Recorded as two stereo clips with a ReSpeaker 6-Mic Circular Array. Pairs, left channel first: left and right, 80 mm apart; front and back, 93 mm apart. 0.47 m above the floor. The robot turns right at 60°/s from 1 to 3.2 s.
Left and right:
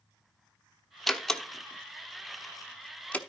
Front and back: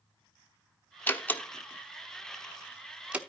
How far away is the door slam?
About 0.9 m.